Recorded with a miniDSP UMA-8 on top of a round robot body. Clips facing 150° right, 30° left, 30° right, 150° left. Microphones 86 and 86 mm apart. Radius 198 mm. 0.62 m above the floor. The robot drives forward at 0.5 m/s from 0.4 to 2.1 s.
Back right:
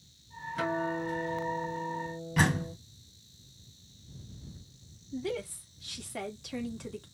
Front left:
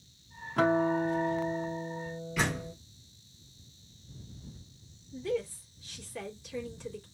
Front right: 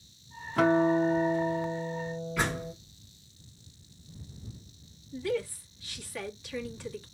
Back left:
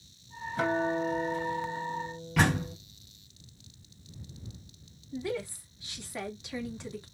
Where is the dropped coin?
No dropped coin in this recording.